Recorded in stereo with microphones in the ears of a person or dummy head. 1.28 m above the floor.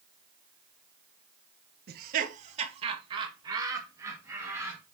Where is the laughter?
60° right (ahead or behind), 1.1 m; by 4.8 s 15° right (ahead or behind), 3 m.